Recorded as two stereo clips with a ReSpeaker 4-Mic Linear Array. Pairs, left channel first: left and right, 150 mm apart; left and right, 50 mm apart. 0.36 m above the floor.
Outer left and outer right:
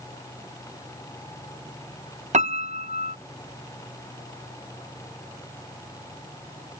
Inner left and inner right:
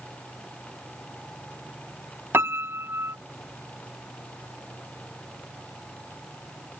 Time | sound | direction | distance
2.3 | a piano | 55° right (ahead or behind) | ?